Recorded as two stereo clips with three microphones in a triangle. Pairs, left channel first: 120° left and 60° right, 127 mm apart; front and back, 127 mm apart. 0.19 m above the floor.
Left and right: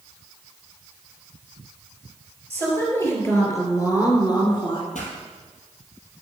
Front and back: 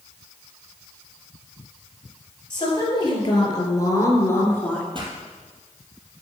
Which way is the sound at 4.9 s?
130° left.